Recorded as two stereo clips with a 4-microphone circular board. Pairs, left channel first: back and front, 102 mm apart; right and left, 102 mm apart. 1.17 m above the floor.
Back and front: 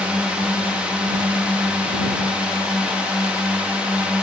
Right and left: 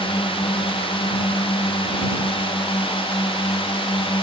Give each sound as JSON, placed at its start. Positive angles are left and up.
{"t": 0.0, "sound": "a drone", "azimuth_deg": -80}